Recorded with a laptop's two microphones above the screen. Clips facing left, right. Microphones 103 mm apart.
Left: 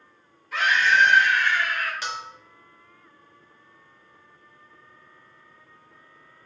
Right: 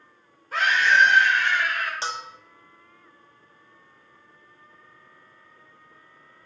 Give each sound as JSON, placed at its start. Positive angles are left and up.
{"t": 0.5, "sound": "a scream", "side_deg": -40, "distance_m": 3.5}
{"t": 2.0, "sound": "a bell", "side_deg": -30, "distance_m": 0.7}